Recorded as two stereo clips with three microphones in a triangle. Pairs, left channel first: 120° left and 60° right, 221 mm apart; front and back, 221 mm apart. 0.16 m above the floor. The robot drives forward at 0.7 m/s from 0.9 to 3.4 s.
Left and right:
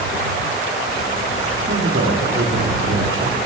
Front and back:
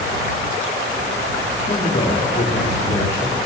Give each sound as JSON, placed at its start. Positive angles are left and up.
{"t": 1.7, "sound": "a man speaking", "azimuth_deg": -45, "distance_m": 3.0}